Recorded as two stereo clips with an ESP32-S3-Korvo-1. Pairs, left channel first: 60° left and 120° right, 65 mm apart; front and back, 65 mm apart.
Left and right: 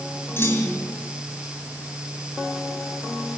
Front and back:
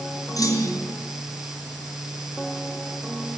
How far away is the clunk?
About 5 m.